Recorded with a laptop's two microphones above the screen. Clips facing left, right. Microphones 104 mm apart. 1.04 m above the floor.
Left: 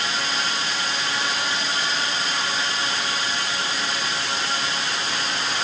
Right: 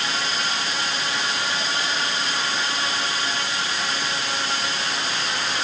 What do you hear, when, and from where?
Only background noise.